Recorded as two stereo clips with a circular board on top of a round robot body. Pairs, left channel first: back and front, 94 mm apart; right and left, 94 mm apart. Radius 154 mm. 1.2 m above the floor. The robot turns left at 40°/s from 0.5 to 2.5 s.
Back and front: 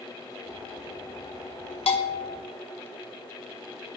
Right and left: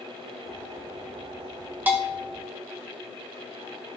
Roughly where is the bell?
Behind.